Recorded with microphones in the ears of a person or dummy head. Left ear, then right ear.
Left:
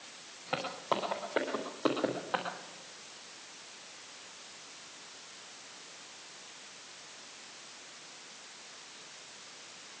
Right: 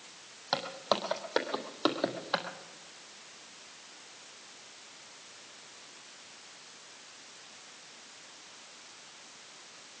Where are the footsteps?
50° right (ahead or behind), 3.5 m; by 2.5 s 40° right (ahead or behind), 2.5 m.